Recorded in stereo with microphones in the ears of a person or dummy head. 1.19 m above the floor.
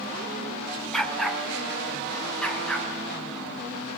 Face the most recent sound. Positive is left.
turn(degrees=5)  # may be behind; listen again after turning